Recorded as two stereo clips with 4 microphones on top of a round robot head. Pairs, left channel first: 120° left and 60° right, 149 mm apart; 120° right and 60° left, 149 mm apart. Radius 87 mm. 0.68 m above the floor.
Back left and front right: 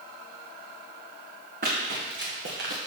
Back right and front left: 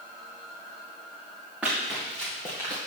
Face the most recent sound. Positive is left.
turn(degrees=-60)